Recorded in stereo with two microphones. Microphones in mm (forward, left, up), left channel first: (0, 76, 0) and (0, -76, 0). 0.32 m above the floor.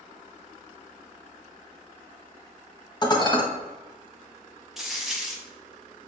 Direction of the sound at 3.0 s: 30° left (ahead or behind).